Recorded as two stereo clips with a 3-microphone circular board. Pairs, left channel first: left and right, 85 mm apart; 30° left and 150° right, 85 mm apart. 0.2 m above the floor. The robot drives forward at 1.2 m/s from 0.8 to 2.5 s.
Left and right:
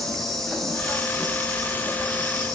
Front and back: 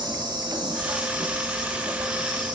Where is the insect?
175° left, 4 m; by 2.5 s straight behind, 6 m.